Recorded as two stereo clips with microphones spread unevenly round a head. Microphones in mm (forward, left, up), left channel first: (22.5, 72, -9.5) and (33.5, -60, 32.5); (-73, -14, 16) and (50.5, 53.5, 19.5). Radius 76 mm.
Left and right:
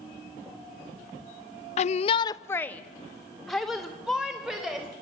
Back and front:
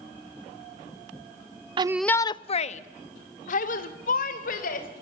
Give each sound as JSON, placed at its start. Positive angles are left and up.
{"t": 1.8, "sound": "a shout", "azimuth_deg": 80, "distance_m": 0.5}